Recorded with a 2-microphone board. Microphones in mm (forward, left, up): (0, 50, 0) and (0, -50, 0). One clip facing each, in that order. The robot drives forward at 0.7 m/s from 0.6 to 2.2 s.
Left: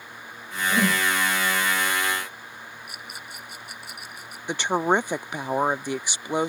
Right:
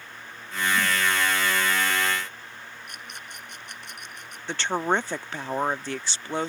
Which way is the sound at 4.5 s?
15° left (ahead or behind).